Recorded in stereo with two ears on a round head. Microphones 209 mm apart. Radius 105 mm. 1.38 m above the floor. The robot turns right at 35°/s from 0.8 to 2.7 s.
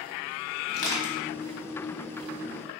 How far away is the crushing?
About 1.8 m.